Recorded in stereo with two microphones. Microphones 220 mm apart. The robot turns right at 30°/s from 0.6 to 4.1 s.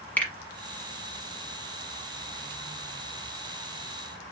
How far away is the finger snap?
About 1.1 m.